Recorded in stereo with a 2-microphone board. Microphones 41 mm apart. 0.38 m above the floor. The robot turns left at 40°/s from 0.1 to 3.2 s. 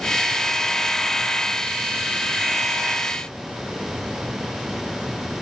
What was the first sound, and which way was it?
Only background noise.